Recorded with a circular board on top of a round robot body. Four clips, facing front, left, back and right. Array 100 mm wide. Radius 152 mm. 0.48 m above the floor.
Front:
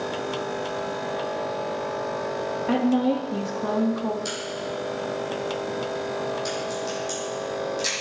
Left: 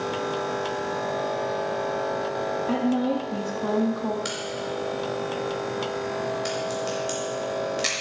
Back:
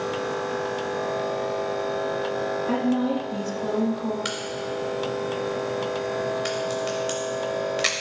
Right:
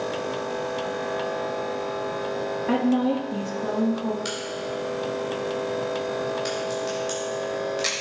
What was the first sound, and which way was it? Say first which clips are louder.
A woman speaking: right 3 dB, front 3 dB; 55° right.